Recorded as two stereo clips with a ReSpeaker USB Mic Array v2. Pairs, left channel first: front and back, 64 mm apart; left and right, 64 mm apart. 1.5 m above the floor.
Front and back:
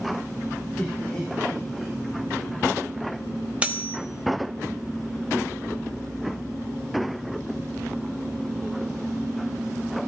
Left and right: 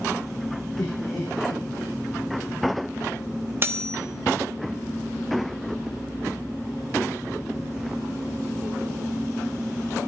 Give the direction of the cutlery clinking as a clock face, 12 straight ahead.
4 o'clock.